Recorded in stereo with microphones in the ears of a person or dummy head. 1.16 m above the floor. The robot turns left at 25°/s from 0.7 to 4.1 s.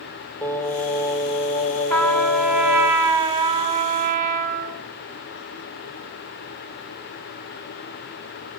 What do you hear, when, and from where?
0.4 s singing: 170° left, 1.9 m; by 2.9 s 115° left, 1.9 m
1.9 s a trumpet: 5° left, 2 m; by 4.8 s 50° right, 2 m